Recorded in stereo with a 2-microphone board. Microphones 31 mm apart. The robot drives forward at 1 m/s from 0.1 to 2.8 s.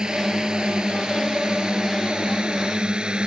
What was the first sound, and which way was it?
A drone, 25° right (ahead or behind).